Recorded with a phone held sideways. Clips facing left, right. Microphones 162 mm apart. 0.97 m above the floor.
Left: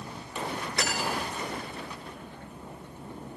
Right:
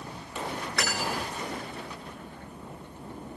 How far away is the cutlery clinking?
About 9.5 m.